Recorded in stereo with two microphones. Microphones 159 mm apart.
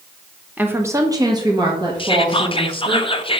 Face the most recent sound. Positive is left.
turn(degrees=30)  # may be behind; listen again after turning